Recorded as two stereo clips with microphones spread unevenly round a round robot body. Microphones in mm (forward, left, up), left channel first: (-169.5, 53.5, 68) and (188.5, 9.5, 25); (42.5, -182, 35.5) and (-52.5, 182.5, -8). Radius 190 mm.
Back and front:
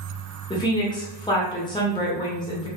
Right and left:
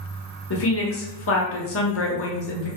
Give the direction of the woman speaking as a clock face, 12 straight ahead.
4 o'clock.